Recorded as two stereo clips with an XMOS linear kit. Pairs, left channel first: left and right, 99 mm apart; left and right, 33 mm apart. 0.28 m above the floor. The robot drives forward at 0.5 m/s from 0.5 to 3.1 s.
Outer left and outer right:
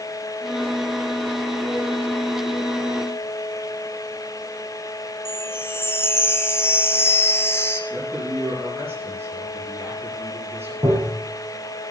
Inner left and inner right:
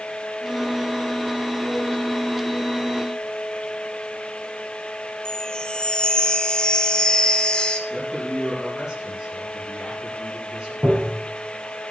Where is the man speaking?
25° right (ahead or behind), 6 m.